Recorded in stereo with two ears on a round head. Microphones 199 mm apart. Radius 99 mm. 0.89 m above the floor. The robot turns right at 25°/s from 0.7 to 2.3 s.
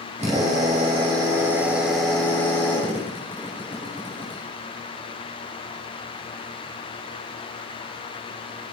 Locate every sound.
0.2 s a drill: 30° right, 6 m; by 4.4 s 10° left, 6 m